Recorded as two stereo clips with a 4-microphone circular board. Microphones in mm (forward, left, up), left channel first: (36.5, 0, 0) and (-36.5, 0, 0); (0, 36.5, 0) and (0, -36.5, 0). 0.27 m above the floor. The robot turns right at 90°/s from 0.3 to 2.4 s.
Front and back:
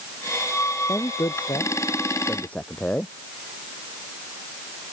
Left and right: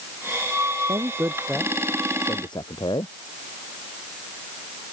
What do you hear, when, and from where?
0.9 s a man speaking: 60° right; by 3.1 s 75° left